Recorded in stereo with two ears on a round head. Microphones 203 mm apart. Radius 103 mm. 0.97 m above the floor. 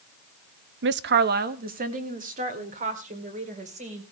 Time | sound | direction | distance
0.8 | a woman speaking | 55° right (ahead or behind) | 0.7 m